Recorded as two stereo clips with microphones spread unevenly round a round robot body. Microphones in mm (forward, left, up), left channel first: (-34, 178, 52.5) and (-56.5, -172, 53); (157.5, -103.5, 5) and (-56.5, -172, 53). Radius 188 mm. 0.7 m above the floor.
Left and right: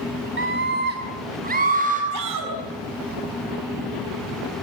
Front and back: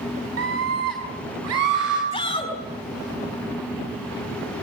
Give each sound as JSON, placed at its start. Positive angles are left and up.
{"t": 0.4, "sound": "a scream", "azimuth_deg": -150, "distance_m": 2.5}
{"t": 2.1, "sound": "a shout", "azimuth_deg": -45, "distance_m": 5.5}